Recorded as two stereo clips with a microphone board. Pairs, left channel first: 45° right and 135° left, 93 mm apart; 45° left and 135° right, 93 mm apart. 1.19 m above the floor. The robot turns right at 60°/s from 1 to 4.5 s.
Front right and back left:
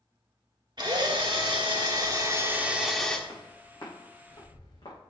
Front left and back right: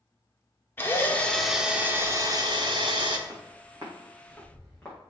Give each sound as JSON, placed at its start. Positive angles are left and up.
{"t": 0.8, "sound": "a drill", "azimuth_deg": 105, "distance_m": 1.2}
{"t": 3.3, "sound": "footsteps", "azimuth_deg": -115, "distance_m": 4.5}